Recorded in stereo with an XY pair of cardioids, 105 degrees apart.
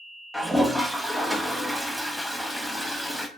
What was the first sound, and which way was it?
A toilet flushing, 5° right.